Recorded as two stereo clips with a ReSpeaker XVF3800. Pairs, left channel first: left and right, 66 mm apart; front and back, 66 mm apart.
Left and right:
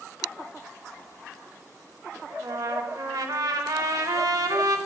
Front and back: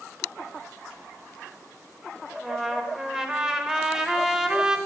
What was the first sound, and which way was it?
A trumpet, 100° right.